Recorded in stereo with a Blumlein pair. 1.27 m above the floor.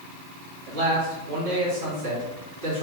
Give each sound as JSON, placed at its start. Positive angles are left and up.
{"t": 0.7, "sound": "a man speaking", "azimuth_deg": -50, "distance_m": 1.7}